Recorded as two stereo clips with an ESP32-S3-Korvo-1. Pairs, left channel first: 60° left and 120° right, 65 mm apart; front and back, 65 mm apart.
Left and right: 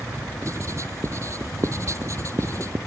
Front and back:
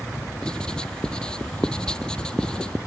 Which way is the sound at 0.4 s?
80° right.